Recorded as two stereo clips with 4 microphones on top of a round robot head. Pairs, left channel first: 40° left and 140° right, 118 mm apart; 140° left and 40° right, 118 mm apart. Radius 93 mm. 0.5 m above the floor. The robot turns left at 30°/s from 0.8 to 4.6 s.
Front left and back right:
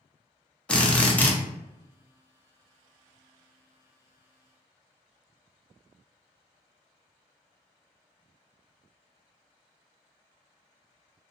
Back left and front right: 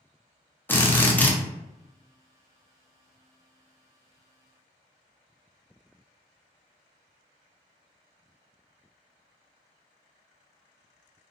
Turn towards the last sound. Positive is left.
turn(degrees=-10)